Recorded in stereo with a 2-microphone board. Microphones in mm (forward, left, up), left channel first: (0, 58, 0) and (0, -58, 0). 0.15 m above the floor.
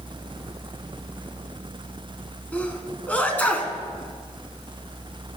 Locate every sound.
2.5 s a sneeze: 15° left (ahead or behind), 1.2 m